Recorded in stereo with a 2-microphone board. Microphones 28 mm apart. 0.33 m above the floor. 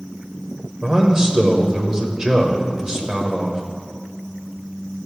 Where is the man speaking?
25° right (ahead or behind), 0.9 m.